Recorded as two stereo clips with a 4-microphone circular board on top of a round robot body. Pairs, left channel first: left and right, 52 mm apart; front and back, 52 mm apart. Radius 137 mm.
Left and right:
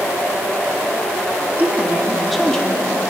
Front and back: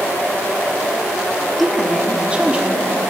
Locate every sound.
1.6 s a woman speaking: 90° right, 1.5 m; by 3.0 s 135° left, 1.8 m